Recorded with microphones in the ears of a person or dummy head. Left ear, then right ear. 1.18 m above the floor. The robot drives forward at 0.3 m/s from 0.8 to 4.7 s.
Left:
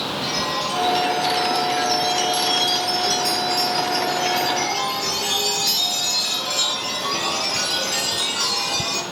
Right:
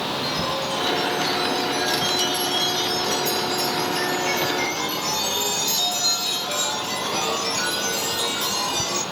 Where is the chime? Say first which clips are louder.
Left 2 dB; 55° left (ahead or behind), 8 m; by 9.0 s 60° left (ahead or behind), 7.5 m.